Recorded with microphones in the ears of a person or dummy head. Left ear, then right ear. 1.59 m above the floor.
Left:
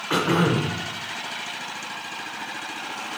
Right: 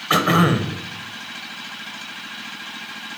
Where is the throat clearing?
5° right (ahead or behind), 0.7 m.